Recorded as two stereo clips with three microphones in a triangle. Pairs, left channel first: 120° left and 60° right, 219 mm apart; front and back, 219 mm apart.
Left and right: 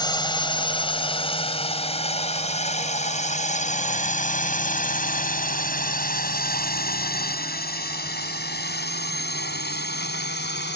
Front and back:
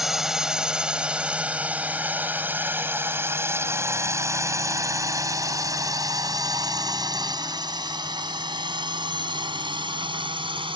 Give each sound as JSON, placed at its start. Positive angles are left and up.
{"t": 0.0, "sound": "a drone", "azimuth_deg": 95}